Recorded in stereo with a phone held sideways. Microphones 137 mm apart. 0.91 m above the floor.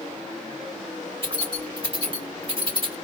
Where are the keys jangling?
35° right (ahead or behind), 2.5 m.